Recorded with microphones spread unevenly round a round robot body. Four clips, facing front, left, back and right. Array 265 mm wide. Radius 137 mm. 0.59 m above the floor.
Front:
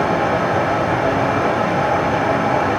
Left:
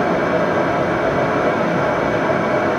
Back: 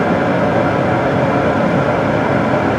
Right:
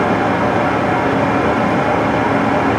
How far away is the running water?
About 2.5 m.